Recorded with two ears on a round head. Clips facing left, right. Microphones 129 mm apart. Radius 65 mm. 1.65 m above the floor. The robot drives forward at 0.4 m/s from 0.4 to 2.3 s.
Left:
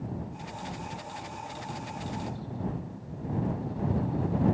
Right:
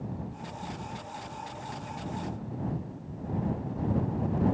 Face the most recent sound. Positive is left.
No sound to turn to.